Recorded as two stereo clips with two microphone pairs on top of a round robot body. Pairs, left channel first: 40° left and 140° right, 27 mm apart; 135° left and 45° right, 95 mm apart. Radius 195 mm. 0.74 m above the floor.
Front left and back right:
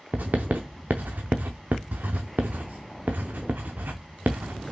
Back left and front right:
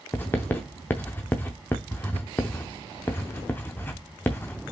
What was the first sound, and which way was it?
Writing, 155° right.